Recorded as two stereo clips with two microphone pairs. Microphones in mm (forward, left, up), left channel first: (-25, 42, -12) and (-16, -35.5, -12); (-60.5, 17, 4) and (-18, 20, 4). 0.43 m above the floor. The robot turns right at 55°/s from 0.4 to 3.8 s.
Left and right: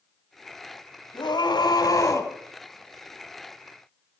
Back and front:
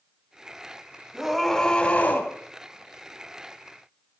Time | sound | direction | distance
1.1 | a scream | 90° left | 2 m